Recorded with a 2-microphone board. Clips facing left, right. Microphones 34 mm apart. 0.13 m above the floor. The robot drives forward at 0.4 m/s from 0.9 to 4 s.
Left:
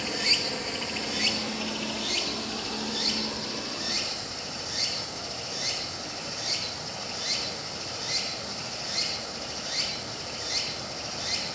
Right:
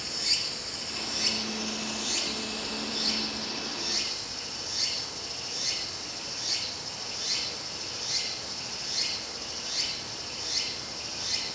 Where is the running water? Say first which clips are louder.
Left 5 dB; 45° left (ahead or behind), 0.8 m; by 11.6 s 15° left (ahead or behind), 1.8 m.